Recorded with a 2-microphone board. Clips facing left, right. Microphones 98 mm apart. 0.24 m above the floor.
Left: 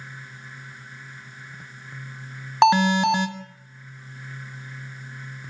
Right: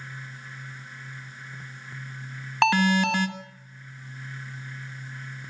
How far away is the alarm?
About 1.6 m.